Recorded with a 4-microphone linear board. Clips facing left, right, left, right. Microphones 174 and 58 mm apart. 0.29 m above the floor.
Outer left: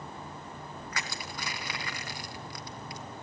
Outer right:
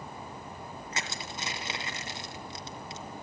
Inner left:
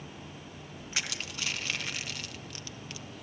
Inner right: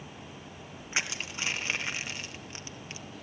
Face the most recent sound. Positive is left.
turn(degrees=-25)  # may be behind; listen again after turning